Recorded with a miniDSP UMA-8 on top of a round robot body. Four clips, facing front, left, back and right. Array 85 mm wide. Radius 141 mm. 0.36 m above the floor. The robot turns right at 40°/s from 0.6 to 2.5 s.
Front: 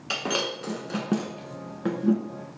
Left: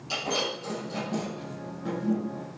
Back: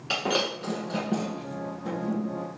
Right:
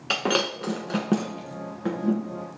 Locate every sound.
0.1 s breaking glass: 85° right, 1.2 m; by 2.2 s 20° right, 1.2 m